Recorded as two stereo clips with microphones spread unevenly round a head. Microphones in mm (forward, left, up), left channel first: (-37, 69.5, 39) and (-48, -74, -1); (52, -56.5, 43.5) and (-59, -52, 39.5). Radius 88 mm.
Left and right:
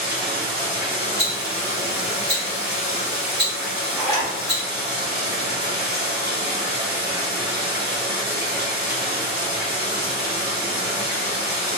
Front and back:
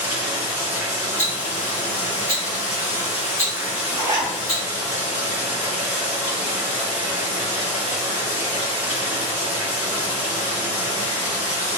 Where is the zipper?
135° left, 1.1 m.